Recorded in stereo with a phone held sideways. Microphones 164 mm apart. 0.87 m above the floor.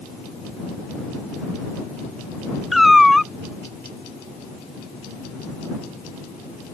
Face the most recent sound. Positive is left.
turn(degrees=0)  # may be behind; listen again after turning